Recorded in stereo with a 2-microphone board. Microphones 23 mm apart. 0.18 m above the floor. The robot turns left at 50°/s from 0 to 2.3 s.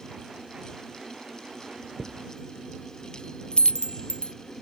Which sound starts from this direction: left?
A chime, at 2.0 s.